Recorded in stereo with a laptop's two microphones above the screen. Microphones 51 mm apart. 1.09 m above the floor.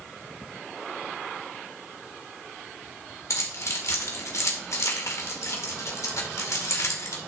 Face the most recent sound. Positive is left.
turn(degrees=85)